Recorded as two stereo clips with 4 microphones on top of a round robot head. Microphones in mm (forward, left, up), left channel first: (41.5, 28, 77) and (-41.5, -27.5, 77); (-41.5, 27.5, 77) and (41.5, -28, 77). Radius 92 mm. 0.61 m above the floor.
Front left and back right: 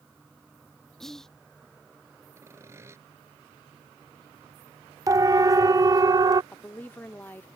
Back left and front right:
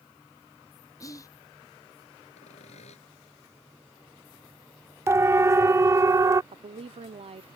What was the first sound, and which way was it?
Whispering, 120° left.